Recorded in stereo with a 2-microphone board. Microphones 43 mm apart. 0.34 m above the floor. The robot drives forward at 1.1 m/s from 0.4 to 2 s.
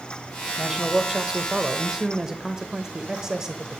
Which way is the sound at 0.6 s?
10° right (ahead or behind).